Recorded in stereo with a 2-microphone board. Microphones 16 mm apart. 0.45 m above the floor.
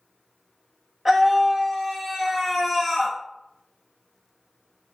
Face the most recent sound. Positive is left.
turn(degrees=-20)  # may be behind; listen again after turning